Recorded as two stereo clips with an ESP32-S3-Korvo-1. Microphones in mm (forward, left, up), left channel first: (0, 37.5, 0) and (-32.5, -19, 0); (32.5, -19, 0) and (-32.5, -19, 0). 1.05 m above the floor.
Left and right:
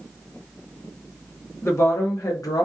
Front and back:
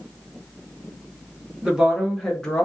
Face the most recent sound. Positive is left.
turn(degrees=70)